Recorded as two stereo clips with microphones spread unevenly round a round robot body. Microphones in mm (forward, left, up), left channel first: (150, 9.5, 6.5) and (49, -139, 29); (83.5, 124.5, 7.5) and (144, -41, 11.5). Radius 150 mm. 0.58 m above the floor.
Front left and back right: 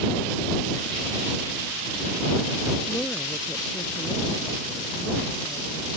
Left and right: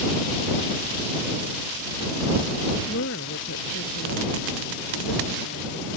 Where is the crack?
No crack in this recording.